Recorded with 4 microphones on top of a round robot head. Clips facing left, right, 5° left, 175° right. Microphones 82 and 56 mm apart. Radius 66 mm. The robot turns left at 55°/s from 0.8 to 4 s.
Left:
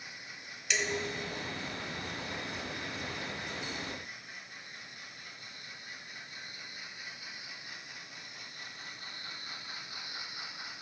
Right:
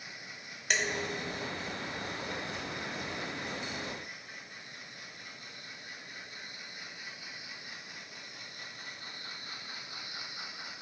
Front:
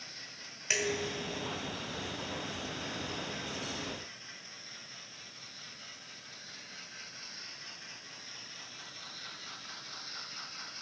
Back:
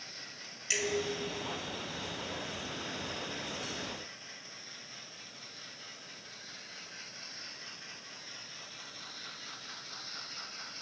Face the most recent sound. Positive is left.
turn(degrees=140)